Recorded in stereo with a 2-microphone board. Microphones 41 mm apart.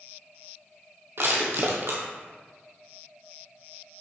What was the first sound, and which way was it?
Crushing, 60° right (ahead or behind).